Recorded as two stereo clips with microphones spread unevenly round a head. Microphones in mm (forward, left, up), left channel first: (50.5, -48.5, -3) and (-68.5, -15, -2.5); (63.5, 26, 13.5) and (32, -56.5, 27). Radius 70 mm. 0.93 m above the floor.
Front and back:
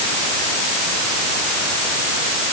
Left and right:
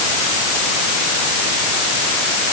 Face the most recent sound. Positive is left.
No sound to turn to.